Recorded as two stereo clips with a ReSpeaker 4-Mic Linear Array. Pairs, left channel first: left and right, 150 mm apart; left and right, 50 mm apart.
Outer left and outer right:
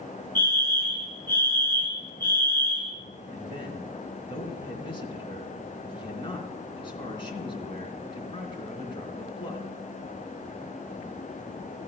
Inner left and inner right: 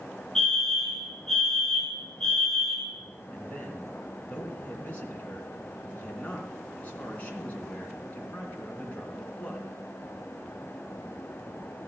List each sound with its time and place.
0.3 s a fire alarm: 15° left (ahead or behind), 5.5 m
3.3 s a man speaking: 30° left (ahead or behind), 3 m